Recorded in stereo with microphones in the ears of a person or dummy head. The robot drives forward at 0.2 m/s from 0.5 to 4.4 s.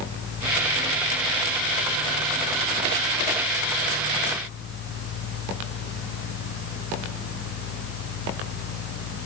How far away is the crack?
No crack in this recording.